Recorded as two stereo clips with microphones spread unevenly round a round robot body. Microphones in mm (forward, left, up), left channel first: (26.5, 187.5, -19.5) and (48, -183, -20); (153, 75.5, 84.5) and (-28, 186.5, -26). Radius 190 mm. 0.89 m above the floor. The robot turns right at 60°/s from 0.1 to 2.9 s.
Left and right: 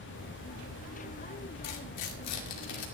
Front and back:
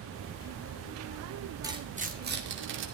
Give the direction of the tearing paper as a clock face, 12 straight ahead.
9 o'clock.